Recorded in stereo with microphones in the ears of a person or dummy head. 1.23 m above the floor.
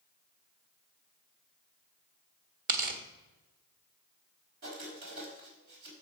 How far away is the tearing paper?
About 1.5 m.